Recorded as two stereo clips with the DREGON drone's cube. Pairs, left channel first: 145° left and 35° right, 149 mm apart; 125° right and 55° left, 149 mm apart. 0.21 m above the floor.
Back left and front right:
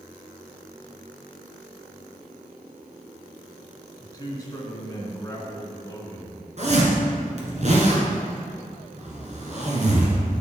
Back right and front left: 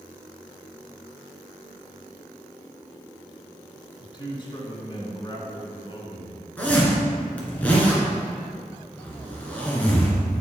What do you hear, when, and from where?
4.0 s a man speaking: 165° right, 1.9 m
6.6 s a zipper: 45° right, 2 m